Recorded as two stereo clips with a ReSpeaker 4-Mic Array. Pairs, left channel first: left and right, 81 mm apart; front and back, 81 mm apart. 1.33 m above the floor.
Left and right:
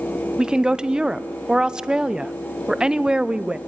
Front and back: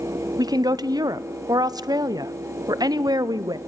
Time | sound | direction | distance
0.4 | a woman speaking | 170° right | 0.6 m